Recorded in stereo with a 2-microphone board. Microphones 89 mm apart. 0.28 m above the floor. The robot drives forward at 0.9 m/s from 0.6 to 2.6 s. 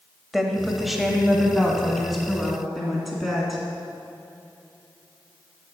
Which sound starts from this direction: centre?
A woman speaking, at 0.3 s.